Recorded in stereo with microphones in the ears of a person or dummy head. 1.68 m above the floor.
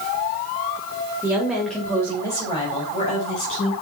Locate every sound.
1.2 s a woman speaking: 10° right (ahead or behind), 1.5 m; by 3.7 s 45° left (ahead or behind), 3 m